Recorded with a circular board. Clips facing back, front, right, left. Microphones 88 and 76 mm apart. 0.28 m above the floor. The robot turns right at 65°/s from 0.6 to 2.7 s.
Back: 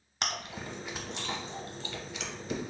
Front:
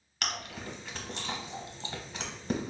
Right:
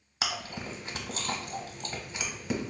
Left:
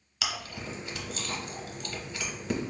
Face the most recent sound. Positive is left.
turn(degrees=10)